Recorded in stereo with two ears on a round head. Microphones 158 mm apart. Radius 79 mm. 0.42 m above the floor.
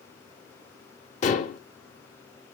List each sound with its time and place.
1.2 s dishes clattering: 40° left (ahead or behind), 0.8 m